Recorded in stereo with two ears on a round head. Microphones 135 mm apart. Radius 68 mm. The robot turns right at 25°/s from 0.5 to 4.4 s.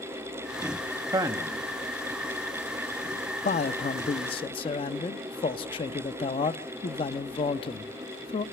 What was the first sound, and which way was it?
A man speaking, 25° right (ahead or behind).